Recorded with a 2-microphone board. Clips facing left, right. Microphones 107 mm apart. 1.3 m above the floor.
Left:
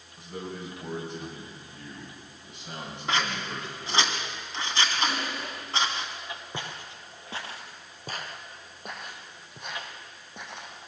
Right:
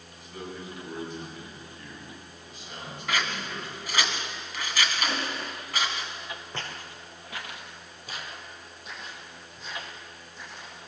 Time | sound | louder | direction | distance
0.2 | a man speaking | left 2 dB | 70° left (ahead or behind) | 8.5 m
3.1 | scissors | left 2 dB | 30° left (ahead or behind) | 2.5 m
5.0 | crushing | even | 10° left (ahead or behind) | 6 m
6.5 | footsteps | even | 15° left (ahead or behind) | 1.8 m